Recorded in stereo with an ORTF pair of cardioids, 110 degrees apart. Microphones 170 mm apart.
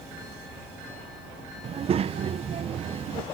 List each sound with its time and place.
1.6 s a child speaking: 40° right, 0.6 m